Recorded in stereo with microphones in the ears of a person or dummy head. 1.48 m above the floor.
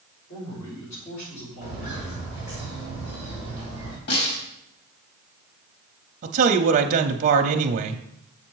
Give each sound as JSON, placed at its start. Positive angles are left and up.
{"t": 0.3, "sound": "a man speaking", "side_deg": 60, "distance_m": 4.5}
{"t": 1.6, "sound": "footsteps", "side_deg": 40, "distance_m": 3.0}
{"t": 4.1, "sound": "a snare drum", "side_deg": 60, "distance_m": 3.5}
{"t": 6.2, "sound": "a man speaking", "side_deg": -45, "distance_m": 0.5}